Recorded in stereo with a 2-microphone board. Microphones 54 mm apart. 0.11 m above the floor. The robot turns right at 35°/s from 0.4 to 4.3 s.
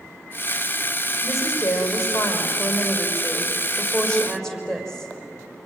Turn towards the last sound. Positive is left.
turn(degrees=175)